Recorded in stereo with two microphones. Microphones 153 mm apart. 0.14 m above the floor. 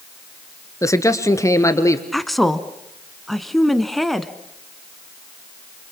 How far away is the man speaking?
About 1.5 m.